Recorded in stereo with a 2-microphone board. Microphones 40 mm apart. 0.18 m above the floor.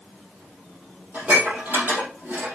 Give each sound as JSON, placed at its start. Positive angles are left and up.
{"t": 1.1, "sound": "dishes clattering", "side_deg": -50, "distance_m": 4.0}